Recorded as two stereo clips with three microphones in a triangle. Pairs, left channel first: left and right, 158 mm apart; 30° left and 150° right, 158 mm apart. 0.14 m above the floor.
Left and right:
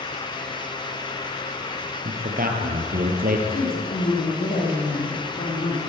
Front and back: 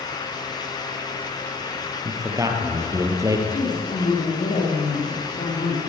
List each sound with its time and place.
2.0 s a man speaking: 80° right, 3.5 m
3.5 s a woman speaking: 65° left, 9.5 m